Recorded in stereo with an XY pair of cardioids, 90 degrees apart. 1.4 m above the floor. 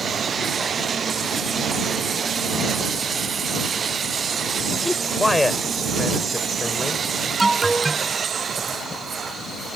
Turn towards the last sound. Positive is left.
turn(degrees=-25)